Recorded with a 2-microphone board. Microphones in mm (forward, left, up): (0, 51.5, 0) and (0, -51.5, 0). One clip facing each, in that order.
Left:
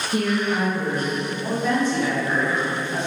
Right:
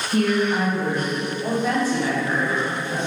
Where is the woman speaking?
15° left (ahead or behind), 1.0 m; by 3.0 s 10° right (ahead or behind), 2.5 m.